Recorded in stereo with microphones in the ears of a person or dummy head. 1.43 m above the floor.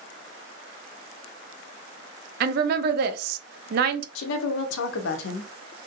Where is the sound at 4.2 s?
80° left, 0.6 m.